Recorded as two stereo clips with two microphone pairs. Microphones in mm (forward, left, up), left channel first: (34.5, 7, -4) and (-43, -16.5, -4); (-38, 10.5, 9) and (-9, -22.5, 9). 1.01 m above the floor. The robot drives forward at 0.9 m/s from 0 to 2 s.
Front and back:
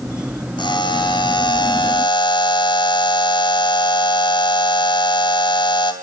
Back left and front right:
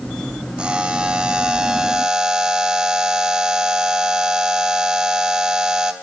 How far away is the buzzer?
About 4.5 m.